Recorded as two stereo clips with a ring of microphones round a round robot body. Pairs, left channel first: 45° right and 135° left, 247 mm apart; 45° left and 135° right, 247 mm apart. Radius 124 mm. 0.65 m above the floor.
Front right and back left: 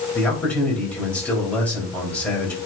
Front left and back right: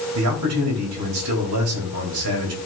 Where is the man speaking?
130° right, 4 m.